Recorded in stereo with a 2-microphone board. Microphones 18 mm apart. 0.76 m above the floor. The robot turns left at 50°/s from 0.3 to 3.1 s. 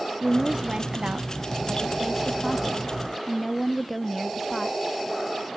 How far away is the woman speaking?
About 0.8 m.